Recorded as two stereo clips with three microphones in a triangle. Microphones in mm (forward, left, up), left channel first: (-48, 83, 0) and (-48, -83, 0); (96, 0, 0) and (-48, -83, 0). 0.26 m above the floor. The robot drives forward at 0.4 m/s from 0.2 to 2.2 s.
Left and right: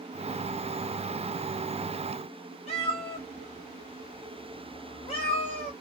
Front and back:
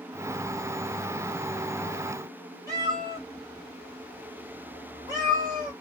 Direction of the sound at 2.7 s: 145° left.